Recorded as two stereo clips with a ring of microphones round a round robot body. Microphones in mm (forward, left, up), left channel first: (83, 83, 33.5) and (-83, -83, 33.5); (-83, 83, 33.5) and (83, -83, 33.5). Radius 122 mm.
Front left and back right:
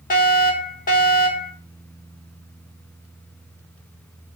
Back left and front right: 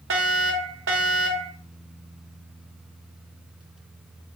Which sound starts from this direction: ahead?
A fire alarm, at 0.1 s.